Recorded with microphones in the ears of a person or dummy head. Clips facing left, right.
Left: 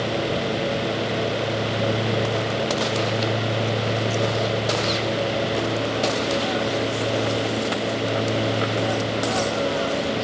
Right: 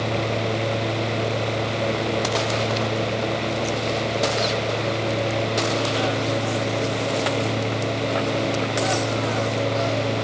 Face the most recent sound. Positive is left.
No sound to turn to.